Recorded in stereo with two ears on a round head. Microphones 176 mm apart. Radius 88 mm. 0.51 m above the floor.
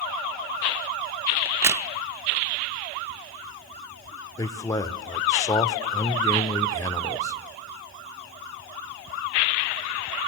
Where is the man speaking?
15° left (ahead or behind), 1.4 m.